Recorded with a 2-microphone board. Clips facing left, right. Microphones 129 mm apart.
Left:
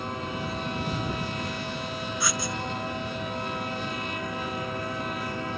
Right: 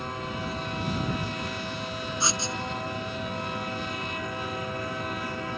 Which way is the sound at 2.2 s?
30° right (ahead or behind).